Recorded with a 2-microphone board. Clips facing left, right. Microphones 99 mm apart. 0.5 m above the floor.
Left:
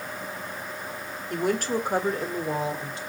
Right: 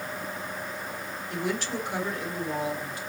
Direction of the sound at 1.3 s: 50° left (ahead or behind).